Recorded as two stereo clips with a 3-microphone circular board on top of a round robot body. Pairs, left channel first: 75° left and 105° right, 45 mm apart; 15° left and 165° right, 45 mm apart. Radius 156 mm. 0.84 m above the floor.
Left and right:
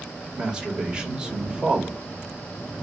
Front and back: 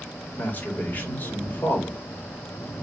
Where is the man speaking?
30° right, 2 m.